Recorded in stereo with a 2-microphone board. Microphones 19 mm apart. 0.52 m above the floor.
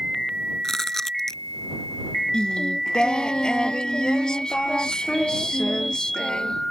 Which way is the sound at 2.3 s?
55° left (ahead or behind).